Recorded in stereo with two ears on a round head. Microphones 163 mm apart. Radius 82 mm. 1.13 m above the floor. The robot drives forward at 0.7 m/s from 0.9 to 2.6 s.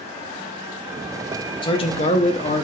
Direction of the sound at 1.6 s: 30° left (ahead or behind).